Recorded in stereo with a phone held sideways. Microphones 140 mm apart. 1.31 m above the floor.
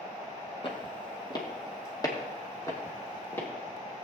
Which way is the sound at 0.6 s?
35° left (ahead or behind).